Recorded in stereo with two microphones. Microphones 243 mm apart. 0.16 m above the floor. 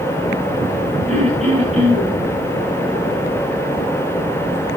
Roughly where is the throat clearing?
Right.